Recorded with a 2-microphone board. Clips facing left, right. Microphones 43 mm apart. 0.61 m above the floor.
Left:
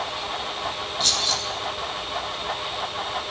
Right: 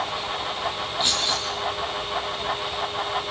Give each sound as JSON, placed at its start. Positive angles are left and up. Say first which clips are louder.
{"t": 1.0, "sound": "keys jangling", "louder": "right 1 dB", "side_deg": -15, "distance_m": 5.5}